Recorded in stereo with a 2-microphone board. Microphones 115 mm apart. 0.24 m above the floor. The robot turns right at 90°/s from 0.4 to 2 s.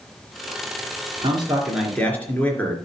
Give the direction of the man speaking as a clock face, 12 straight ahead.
2 o'clock.